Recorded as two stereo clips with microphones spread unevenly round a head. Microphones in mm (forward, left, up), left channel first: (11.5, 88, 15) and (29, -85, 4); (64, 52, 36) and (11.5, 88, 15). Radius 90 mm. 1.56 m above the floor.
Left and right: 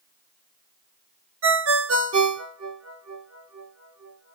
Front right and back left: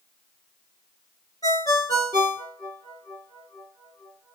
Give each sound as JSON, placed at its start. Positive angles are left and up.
{"t": 1.4, "sound": "a ringtone", "azimuth_deg": -85, "distance_m": 2.5}